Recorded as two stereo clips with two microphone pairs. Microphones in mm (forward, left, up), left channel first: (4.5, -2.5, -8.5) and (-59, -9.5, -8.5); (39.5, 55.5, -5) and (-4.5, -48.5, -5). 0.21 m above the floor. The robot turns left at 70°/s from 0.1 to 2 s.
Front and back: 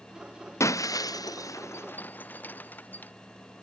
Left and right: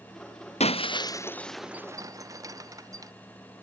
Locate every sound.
0.6 s breaking glass: 45° left; by 3.1 s 55° right